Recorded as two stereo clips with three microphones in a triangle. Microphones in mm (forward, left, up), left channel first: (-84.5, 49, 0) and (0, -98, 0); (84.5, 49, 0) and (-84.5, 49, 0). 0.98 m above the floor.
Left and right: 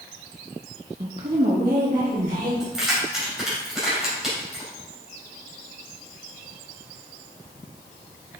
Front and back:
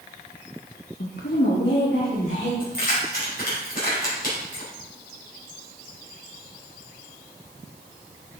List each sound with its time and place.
1.0 s a woman speaking: 5° right, 0.6 m; by 2.5 s 30° right, 2.5 m
2.6 s keys jangling: 25° left, 3 m